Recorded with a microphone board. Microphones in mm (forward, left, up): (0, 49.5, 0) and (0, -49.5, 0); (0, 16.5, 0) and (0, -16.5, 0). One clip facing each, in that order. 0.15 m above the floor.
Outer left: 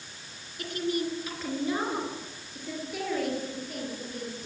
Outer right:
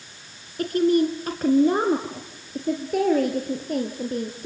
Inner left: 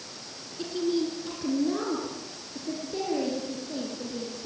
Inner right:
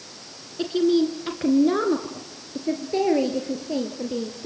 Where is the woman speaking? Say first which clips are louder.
Outer right 11 dB, inner right 8 dB; 45° right (ahead or behind), 1.8 m; by 4.5 s 50° right (ahead or behind), 3.5 m.